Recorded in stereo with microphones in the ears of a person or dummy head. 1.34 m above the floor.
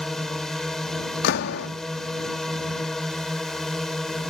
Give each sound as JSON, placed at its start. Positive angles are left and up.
{"t": 0.0, "sound": "a drone", "side_deg": 0}
{"t": 1.2, "sound": "a door slam", "side_deg": 60}